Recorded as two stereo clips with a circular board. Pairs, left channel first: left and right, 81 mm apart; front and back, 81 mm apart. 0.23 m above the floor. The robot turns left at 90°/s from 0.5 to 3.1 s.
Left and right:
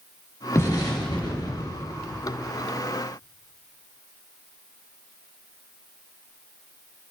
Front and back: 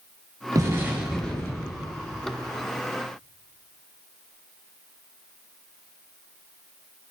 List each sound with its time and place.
0.6 s an explosion: 145° left, 4.5 m; by 1.9 s 25° left, 4.5 m